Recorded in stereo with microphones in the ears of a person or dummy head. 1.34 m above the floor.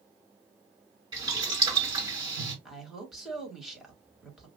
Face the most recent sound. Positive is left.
turn(degrees=-5)  # may be behind; listen again after turning